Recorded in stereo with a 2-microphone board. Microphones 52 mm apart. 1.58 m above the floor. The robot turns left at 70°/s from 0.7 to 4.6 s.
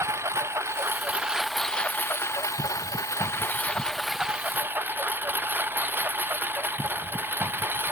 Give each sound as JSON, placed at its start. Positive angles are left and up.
{"t": 0.0, "sound": "a lawn mower", "side_deg": -60}